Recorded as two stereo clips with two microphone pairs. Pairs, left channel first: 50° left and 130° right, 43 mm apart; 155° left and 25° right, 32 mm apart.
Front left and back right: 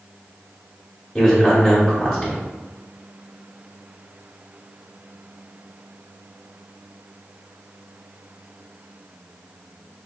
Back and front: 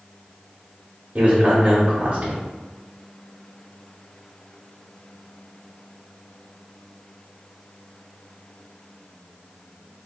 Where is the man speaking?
25° right, 0.9 m.